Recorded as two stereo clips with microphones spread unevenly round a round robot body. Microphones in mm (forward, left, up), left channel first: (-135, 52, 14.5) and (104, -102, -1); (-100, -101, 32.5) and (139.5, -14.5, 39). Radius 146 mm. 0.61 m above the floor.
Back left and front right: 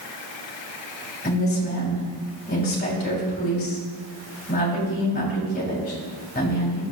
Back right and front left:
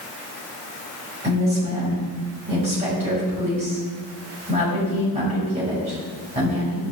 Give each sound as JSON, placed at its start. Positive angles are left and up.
{"t": 1.2, "sound": "a woman speaking", "azimuth_deg": 85, "distance_m": 3.0}